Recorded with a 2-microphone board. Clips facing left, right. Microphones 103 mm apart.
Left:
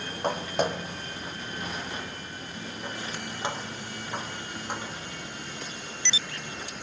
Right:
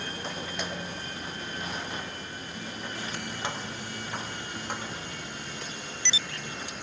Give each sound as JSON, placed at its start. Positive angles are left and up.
{"t": 0.2, "sound": "footsteps", "side_deg": 55, "distance_m": 2.5}